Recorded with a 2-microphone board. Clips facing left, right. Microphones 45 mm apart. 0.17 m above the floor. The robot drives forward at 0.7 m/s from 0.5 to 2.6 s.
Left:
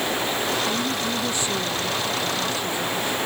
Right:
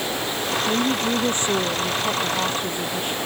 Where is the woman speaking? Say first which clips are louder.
Right 3 dB; 55° right (ahead or behind); by 3.2 s 45° right (ahead or behind).